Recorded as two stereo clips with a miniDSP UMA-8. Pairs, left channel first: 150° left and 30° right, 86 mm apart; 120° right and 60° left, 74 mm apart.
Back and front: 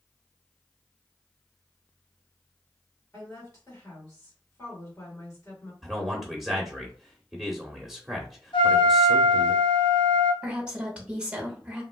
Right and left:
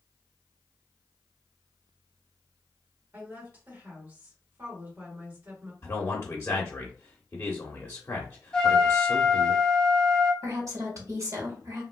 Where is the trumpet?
160° left, 1.6 m.